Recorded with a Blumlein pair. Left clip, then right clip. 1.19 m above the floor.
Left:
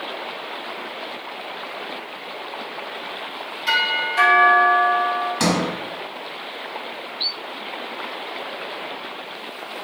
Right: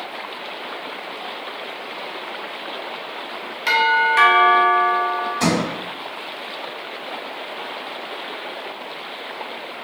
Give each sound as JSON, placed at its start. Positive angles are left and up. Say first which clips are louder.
{"t": 3.7, "sound": "a doorbell", "louder": "right 4 dB", "azimuth_deg": -30, "distance_m": 1.2}
{"t": 5.4, "sound": "a sliding door", "louder": "right 1 dB", "azimuth_deg": 30, "distance_m": 1.0}